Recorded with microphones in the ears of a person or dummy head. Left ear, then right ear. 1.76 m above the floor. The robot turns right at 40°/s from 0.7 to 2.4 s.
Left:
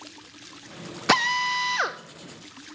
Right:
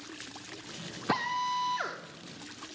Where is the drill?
100° left, 0.5 m; by 2.0 s 135° left, 0.5 m.